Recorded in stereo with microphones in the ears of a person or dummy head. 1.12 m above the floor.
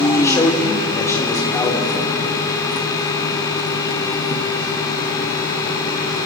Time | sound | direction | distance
0.1 | a man speaking | 15° left (ahead or behind) | 2.5 m